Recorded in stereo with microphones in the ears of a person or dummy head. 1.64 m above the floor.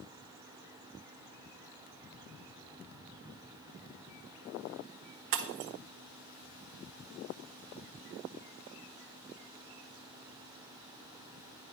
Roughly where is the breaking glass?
Right.